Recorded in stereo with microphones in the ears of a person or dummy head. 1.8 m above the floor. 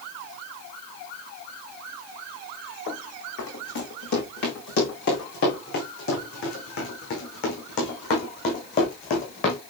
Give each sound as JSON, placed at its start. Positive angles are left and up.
{"t": 2.9, "sound": "running footsteps", "side_deg": 60, "distance_m": 6.5}